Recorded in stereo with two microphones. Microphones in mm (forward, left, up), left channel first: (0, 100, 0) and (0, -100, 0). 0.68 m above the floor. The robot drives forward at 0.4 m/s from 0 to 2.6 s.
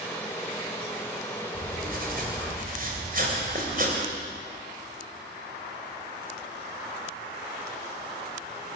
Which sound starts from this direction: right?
Writing, at 1.5 s.